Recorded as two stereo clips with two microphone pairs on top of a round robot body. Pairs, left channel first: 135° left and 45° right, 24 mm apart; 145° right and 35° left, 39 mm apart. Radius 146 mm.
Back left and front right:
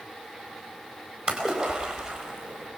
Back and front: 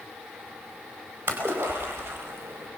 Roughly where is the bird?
I don't hear a bird.